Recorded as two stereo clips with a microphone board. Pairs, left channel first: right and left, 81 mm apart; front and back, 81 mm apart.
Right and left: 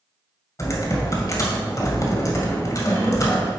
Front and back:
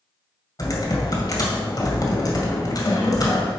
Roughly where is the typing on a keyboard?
Ahead right.